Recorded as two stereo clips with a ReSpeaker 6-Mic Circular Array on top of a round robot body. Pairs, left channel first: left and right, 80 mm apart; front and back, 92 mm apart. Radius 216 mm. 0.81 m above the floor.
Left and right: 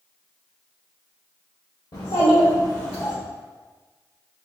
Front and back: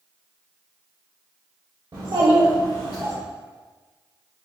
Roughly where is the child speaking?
Behind left.